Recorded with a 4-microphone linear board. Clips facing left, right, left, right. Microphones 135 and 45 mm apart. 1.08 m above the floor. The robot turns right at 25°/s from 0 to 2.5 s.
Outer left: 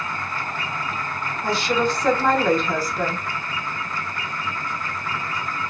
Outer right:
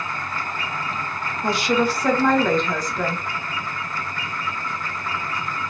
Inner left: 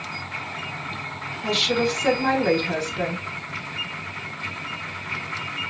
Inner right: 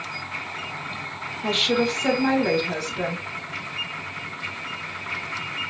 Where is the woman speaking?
20° right (ahead or behind), 1.0 m; by 3.2 s 5° left (ahead or behind), 1.0 m.